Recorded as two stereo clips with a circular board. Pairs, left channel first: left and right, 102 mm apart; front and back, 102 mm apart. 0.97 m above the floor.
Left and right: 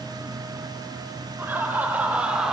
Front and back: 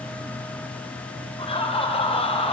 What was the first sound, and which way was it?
Laughter, 20° right.